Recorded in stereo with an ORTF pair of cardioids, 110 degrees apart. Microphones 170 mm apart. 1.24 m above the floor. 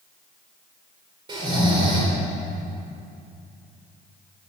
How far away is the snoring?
About 3.5 m.